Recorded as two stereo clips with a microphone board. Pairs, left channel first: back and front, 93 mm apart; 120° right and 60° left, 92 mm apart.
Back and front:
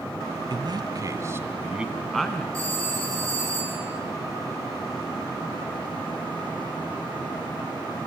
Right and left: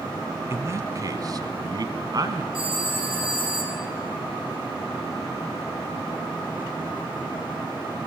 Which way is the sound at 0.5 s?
5° left.